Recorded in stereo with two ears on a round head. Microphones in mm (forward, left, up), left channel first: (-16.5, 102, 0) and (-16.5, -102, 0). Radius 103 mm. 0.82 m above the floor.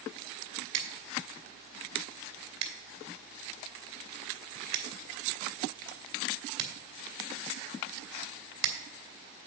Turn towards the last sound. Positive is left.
turn(degrees=-75)  # may be behind; listen again after turning